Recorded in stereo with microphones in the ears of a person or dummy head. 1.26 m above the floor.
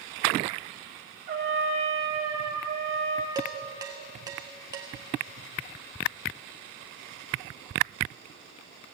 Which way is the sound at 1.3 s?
45° right (ahead or behind).